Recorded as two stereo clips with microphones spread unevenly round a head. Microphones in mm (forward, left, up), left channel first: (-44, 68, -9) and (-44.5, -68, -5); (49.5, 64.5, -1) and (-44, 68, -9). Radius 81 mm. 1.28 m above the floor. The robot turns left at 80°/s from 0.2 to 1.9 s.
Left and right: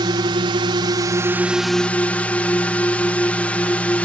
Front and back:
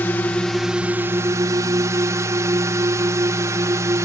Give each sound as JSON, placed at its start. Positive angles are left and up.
{"t": 0.0, "sound": "a drone", "azimuth_deg": -65}